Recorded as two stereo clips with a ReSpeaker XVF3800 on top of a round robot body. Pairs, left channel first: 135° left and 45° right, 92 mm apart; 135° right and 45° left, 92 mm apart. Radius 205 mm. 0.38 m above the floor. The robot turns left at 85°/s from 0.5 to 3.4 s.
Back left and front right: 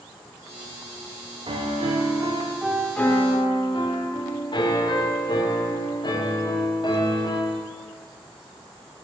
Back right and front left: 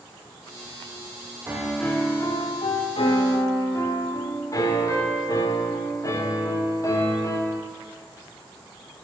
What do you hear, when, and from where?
1.5 s a piano: 25° right, 0.9 m; by 7.6 s 170° left, 0.9 m